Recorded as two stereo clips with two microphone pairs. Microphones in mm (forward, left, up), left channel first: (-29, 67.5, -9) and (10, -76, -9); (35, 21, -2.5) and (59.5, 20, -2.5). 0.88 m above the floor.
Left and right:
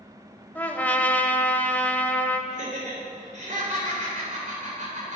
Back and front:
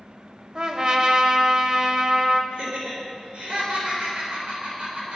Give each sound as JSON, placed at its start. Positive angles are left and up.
{"t": 0.6, "sound": "a trumpet", "azimuth_deg": 30, "distance_m": 0.8}
{"t": 2.5, "sound": "laughter", "azimuth_deg": -40, "distance_m": 4.0}